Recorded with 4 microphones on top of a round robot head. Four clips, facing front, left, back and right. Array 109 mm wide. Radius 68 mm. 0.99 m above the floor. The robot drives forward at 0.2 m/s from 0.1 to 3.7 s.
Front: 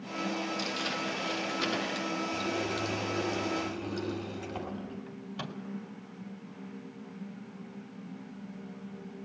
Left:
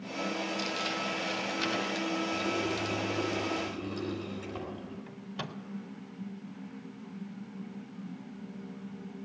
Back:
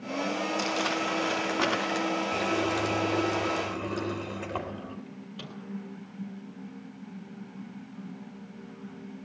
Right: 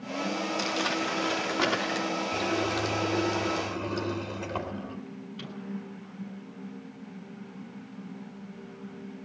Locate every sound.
0.6 s crumpling: 140° right, 4 m; by 2.1 s 145° right, 4 m
2.3 s a running tap: 150° right, 3.5 m; by 5.0 s 155° right, 4 m
5.1 s a microwave: 75° left, 4 m